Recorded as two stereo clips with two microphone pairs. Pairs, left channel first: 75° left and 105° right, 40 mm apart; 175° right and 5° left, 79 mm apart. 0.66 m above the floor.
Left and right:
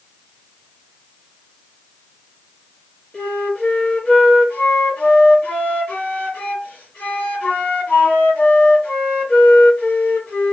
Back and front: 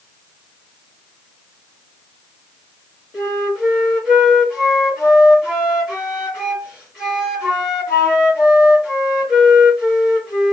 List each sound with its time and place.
3.1 s a flute: 75° left, 1.2 m